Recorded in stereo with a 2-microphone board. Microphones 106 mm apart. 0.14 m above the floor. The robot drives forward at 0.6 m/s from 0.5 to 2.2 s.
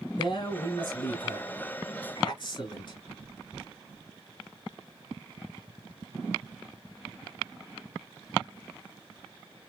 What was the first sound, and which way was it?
A man speaking, 50° left (ahead or behind).